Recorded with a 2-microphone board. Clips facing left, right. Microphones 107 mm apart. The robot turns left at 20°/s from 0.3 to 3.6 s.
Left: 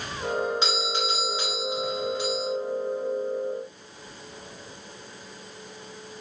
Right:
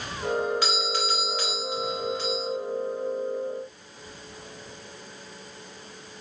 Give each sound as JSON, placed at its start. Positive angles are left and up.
{"t": 0.6, "sound": "a doorbell", "side_deg": 20, "distance_m": 1.1}